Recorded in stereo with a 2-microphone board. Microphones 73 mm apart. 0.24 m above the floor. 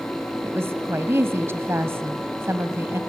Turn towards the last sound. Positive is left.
turn(degrees=-35)  # may be behind; listen again after turning